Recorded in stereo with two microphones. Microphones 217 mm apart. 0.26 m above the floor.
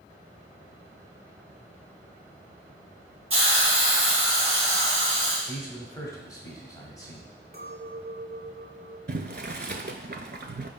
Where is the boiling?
50° right (ahead or behind), 0.6 m.